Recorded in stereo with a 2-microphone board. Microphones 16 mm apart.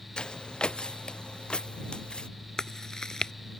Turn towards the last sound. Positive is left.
turn(degrees=50)  # may be behind; listen again after turning